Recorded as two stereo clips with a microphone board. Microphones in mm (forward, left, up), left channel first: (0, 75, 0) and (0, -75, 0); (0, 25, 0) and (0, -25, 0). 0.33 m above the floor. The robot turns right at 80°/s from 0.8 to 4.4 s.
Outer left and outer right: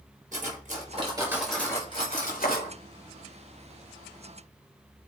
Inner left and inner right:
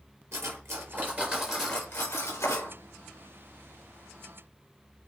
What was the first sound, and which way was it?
Cutlery clinking, 55° right.